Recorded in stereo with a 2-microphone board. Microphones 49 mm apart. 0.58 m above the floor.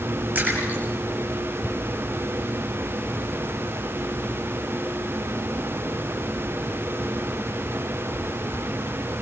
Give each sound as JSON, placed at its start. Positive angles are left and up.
{"t": 0.3, "sound": "a splash", "side_deg": -35, "distance_m": 8.0}